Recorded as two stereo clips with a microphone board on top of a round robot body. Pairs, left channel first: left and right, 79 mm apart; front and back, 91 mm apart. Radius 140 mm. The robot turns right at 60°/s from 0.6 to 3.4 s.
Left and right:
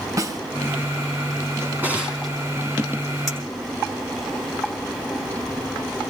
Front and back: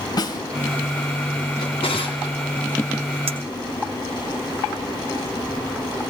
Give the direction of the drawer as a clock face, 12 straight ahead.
1 o'clock.